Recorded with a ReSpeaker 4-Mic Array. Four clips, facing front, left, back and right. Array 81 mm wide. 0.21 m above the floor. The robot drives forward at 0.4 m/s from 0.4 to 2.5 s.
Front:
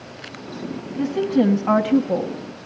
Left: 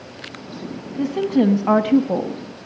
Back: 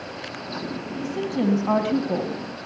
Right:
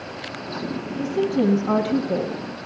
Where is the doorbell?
I don't hear a doorbell.